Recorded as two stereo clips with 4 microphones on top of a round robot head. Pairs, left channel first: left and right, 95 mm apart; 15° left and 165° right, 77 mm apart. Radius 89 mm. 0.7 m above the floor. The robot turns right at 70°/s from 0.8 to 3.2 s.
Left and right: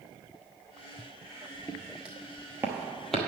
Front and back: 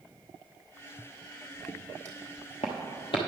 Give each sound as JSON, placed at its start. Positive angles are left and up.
{"t": 1.7, "sound": "footsteps", "azimuth_deg": 35, "distance_m": 0.7}